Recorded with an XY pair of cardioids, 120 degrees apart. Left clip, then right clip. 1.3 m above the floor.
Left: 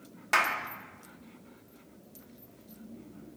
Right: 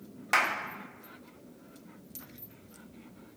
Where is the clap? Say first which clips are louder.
Even; 5° right, 1.3 m.